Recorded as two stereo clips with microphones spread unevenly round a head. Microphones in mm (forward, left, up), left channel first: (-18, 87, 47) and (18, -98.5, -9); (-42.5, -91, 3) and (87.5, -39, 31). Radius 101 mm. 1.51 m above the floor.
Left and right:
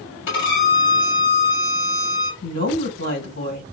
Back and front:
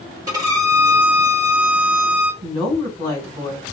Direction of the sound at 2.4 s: 80° left.